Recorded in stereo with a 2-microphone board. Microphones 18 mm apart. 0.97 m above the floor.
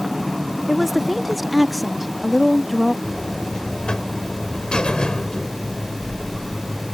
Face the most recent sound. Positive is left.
turn(degrees=55)  # may be behind; listen again after turning